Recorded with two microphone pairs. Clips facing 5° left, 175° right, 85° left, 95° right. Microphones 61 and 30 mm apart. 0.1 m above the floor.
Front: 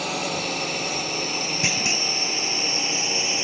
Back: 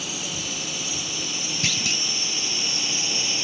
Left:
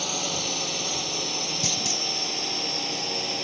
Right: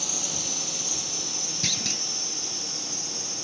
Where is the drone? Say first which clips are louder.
Front 7 dB, left 5 dB; 25° left; by 3.5 s 55° left.